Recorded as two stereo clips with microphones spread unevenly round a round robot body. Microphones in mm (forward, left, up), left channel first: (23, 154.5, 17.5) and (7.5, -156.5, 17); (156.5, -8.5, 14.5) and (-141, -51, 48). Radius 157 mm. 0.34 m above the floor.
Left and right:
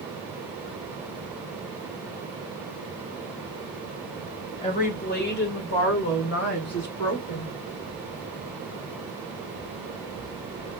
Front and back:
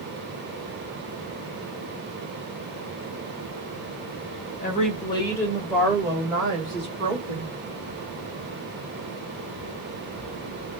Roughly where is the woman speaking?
Ahead left.